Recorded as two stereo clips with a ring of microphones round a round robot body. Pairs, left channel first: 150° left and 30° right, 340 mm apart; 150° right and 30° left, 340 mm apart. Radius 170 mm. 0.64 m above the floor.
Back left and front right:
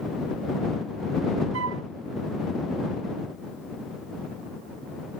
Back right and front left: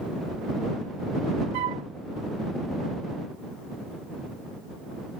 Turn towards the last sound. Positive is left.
turn(degrees=20)